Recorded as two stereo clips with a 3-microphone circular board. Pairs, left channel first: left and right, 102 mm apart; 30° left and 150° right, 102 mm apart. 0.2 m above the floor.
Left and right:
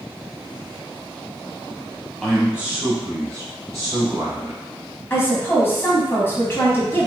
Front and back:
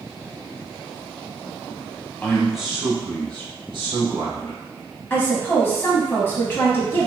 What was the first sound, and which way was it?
A man speaking, straight ahead.